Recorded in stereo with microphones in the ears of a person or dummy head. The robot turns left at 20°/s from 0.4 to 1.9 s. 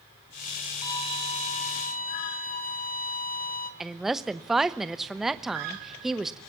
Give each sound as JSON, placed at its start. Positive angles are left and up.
{"t": 0.8, "sound": "a violin", "side_deg": 20, "distance_m": 2.0}
{"t": 3.8, "sound": "a woman speaking", "side_deg": -5, "distance_m": 1.0}